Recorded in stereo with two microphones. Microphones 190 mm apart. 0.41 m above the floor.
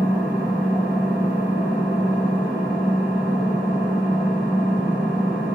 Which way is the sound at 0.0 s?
10° right (ahead or behind).